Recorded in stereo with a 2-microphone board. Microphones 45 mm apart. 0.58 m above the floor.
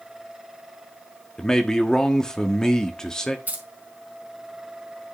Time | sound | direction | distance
1.4 | a man speaking | 15° left (ahead or behind) | 1.1 m
3.5 | keys jangling | 40° right (ahead or behind) | 2.5 m